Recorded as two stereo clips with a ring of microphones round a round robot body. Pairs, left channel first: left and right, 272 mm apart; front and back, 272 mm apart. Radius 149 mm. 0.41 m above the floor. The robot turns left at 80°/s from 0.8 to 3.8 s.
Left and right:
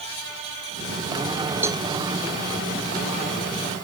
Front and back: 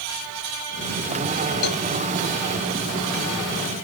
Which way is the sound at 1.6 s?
5° right.